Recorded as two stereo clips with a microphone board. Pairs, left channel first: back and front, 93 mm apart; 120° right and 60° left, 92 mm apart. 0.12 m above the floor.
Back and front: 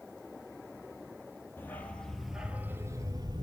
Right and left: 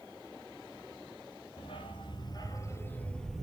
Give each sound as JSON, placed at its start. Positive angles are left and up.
{"t": 1.6, "sound": "a dog barking", "azimuth_deg": -115, "distance_m": 1.3}